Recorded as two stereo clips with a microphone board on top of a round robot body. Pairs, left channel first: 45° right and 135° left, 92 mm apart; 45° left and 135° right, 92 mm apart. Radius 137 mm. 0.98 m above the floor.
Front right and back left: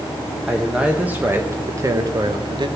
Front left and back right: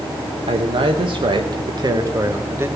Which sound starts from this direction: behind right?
A man speaking, at 0.5 s.